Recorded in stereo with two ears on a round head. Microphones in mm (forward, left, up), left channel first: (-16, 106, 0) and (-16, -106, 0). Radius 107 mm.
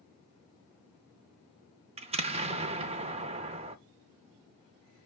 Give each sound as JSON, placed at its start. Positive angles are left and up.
{"t": 2.0, "sound": "an explosion", "side_deg": -25, "distance_m": 0.7}